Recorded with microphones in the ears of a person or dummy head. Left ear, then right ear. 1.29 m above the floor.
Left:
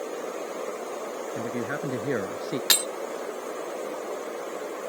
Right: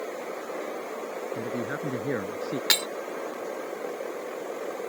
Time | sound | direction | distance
1.4 | a man speaking | 15° left (ahead or behind) | ?
2.7 | breaking glass | 5° right (ahead or behind) | ?